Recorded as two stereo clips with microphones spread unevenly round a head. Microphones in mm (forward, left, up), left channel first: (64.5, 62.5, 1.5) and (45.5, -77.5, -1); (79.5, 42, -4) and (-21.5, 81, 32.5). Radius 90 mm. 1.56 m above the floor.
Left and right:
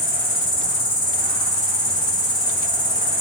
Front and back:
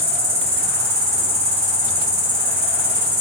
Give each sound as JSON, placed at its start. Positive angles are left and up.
{"t": 0.0, "sound": "an insect", "azimuth_deg": 140, "distance_m": 6.5}